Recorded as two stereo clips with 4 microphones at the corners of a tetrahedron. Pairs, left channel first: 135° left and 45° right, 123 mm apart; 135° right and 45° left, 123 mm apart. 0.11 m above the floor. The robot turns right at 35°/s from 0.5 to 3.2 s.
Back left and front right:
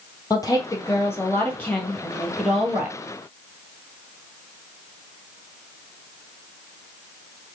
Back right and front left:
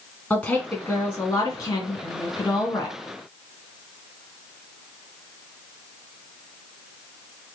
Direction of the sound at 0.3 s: 160° left.